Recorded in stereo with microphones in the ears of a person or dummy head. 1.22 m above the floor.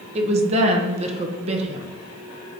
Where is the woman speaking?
35° right (ahead or behind), 0.8 m.